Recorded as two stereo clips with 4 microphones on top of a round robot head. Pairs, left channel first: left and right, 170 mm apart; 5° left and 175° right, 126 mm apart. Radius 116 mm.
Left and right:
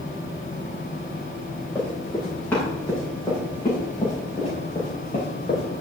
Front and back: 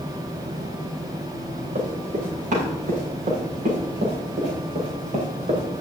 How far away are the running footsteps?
About 7.5 m.